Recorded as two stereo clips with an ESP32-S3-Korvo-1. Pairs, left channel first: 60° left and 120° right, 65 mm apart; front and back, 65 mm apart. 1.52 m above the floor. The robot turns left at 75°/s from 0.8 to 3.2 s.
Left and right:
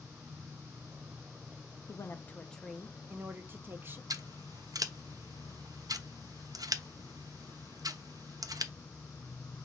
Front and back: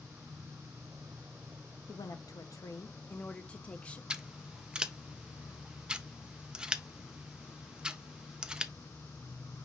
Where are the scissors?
105° right, 0.5 m.